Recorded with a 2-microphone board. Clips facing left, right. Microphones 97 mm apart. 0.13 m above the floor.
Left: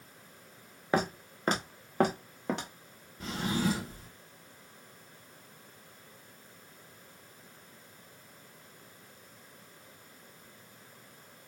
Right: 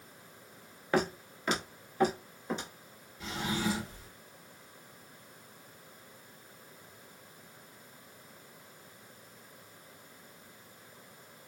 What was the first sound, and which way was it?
Footsteps, 15° left (ahead or behind).